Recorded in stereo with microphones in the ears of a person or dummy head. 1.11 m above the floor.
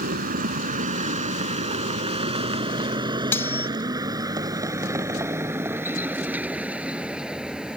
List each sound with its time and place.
0.0 s a vehicle: 45° right (ahead or behind); by 7.8 s centre (ahead or behind)
3.3 s cutlery clinking: 10° left (ahead or behind)